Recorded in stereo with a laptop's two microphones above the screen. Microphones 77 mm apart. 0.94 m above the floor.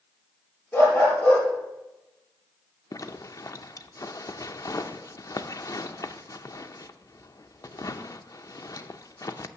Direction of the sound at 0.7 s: 20° left (ahead or behind).